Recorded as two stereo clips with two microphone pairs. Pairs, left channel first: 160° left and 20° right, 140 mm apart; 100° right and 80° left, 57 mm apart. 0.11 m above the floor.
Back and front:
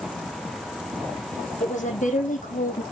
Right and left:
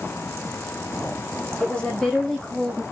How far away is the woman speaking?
About 5.5 m.